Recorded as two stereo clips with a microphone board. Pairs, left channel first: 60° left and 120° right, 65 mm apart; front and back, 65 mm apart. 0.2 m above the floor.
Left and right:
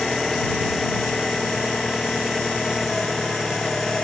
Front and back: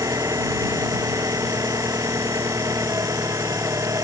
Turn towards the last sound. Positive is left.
turn(degrees=145)